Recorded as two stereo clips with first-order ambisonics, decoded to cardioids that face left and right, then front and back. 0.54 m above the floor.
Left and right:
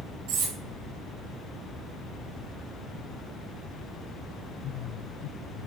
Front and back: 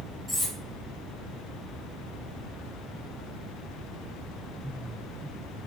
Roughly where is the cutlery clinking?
Right.